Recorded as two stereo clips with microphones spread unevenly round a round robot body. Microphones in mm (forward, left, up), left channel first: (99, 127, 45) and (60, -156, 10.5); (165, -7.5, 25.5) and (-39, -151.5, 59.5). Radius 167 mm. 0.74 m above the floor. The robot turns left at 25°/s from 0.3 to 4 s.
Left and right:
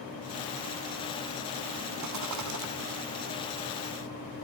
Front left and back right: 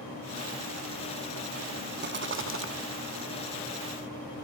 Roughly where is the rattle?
Right.